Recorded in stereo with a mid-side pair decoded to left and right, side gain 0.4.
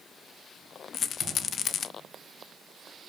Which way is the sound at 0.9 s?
60° left.